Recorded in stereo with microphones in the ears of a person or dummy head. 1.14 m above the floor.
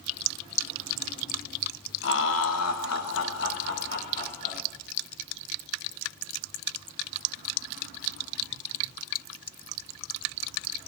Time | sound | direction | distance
2.0 | laughter | 65° left (ahead or behind) | 0.9 m